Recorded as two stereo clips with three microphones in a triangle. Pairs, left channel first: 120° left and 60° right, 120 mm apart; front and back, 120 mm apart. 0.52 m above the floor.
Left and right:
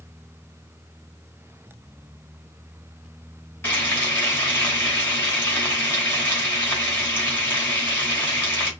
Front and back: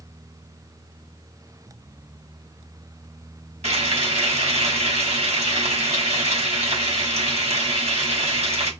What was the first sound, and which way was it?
Frying, 170° right.